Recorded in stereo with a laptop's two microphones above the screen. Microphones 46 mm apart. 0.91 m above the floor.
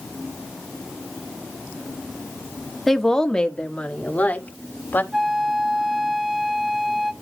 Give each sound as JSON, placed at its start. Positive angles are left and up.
{"t": 2.9, "sound": "a woman speaking", "side_deg": 5, "distance_m": 1.6}
{"t": 5.1, "sound": "a flute", "side_deg": -15, "distance_m": 1.8}